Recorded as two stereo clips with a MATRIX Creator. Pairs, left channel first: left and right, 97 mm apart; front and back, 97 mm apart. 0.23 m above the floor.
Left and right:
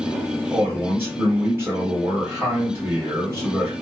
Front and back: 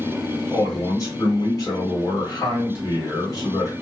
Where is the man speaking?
35° right, 1.7 m.